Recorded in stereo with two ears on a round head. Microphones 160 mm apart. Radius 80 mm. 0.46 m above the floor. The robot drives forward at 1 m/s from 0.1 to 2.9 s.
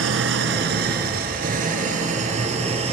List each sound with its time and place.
0.0 s an engine running: 80° right, 2.5 m; by 2.9 s 35° right (ahead or behind), 4 m